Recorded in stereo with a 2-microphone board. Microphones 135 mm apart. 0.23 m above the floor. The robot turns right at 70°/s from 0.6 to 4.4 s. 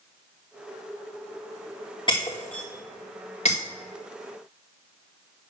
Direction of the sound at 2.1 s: 35° left (ahead or behind).